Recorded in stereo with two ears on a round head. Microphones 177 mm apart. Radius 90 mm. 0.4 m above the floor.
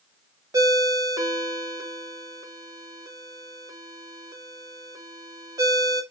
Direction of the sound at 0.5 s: 20° right (ahead or behind).